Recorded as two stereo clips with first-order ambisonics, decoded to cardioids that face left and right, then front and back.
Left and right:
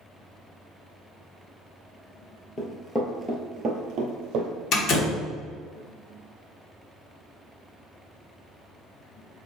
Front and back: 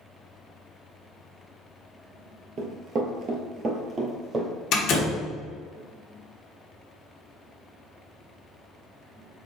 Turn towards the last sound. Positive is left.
turn(degrees=45)